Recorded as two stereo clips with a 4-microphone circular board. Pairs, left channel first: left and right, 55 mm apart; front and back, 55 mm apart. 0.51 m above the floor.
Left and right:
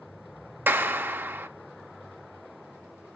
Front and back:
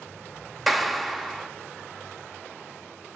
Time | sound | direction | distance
0.7 | a clap | 90° right | 0.6 m